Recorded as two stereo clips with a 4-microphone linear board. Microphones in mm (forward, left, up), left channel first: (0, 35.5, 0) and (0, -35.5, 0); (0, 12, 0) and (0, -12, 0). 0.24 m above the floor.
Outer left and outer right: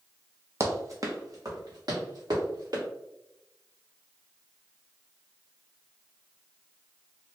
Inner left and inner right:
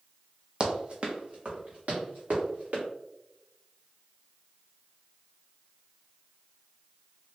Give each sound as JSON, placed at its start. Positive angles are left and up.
{"t": 0.6, "sound": "running footsteps", "side_deg": -40, "distance_m": 0.6}